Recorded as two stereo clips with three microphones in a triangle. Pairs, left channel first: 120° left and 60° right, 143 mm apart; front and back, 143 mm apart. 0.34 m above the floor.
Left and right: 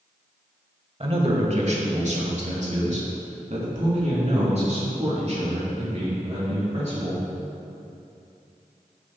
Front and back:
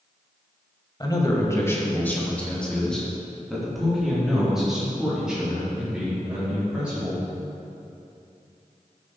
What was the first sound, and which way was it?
A man speaking, 45° right.